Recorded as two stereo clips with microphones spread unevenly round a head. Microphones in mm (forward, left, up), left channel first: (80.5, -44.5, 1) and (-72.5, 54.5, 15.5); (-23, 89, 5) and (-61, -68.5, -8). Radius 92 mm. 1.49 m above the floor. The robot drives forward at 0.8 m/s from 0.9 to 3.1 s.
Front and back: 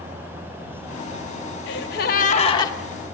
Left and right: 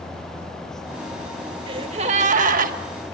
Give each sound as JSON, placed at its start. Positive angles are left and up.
{"t": 1.7, "sound": "a gasp", "azimuth_deg": -40, "distance_m": 1.1}